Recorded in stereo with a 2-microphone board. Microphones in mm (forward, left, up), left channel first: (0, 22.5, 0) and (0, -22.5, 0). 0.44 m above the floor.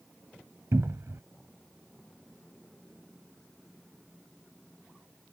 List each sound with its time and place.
0.7 s a cupboard door: 85° right